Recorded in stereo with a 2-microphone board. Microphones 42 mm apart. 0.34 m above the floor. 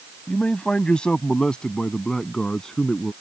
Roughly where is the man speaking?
Left.